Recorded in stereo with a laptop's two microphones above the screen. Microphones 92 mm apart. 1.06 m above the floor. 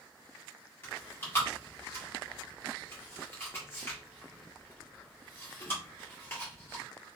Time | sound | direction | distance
0.8 | chewing | 25° left (ahead or behind) | 1.7 m